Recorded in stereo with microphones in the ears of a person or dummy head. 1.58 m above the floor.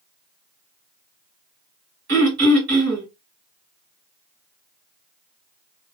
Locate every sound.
2.1 s throat clearing: 45° right (ahead or behind), 2.0 m